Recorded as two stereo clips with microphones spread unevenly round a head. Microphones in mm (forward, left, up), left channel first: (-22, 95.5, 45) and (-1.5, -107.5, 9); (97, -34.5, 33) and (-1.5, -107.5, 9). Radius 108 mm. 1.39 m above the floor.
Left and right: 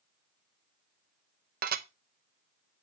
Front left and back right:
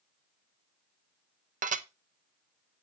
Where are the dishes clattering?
135° right, 0.8 m.